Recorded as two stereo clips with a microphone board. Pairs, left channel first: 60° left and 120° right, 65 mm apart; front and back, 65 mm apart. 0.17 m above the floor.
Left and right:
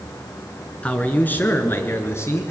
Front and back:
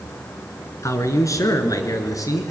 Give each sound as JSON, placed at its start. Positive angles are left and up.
{"t": 0.8, "sound": "a man speaking", "azimuth_deg": -5, "distance_m": 2.5}